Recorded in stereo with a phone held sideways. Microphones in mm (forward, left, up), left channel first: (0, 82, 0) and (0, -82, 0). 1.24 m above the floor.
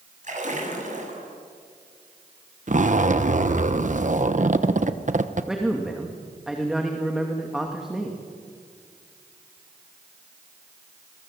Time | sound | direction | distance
0.2 | a splash | 50° right (ahead or behind) | 8 m
2.7 | a zipper | 50° right (ahead or behind) | 1.1 m
5.5 | a man speaking | 5° right (ahead or behind) | 2.5 m